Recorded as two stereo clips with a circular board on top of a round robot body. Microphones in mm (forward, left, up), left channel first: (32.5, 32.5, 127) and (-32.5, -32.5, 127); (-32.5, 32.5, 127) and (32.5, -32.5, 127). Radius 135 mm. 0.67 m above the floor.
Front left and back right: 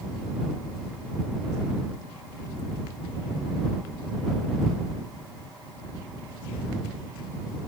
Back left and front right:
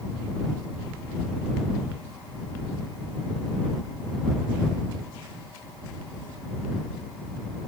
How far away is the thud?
No thud in this recording.